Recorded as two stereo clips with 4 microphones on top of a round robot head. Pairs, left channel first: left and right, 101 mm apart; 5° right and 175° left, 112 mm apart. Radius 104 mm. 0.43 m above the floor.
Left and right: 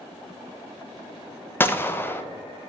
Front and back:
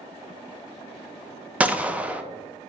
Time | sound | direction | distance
1.6 | a gunshot | 115° left | 0.5 m